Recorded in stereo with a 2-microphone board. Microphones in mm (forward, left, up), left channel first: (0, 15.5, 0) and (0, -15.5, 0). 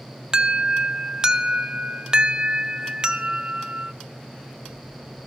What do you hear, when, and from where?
0.3 s an alarm: 25° right (ahead or behind), 0.9 m